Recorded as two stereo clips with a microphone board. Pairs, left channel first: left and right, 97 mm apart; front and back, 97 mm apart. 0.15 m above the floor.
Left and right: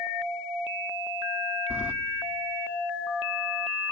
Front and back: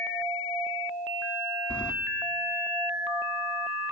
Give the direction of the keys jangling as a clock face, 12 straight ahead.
2 o'clock.